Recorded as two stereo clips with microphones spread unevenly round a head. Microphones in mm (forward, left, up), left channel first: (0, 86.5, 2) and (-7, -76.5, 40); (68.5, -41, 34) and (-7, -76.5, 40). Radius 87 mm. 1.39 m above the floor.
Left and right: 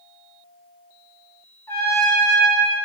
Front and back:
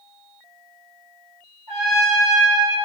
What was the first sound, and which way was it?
A trumpet, 170° left.